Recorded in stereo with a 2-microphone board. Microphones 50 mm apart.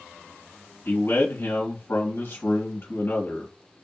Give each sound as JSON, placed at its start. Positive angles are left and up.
{"t": 0.8, "sound": "a man speaking", "side_deg": 55, "distance_m": 1.6}